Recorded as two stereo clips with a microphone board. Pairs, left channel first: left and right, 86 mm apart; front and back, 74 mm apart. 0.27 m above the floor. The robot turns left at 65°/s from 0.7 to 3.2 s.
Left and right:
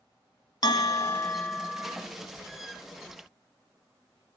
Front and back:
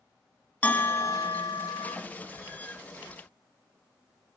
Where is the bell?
65° left, 0.7 m; by 2.0 s 20° right, 0.7 m.